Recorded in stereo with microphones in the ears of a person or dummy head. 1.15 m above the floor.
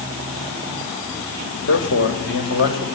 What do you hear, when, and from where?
1.7 s a man speaking: 65° left (ahead or behind), 6.5 m